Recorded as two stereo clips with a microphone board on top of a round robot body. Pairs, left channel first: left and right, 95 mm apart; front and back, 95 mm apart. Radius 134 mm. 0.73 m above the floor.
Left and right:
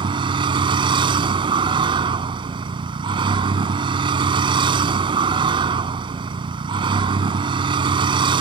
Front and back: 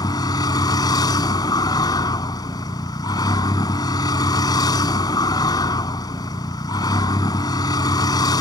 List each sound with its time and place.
0.0 s a vehicle: 50° right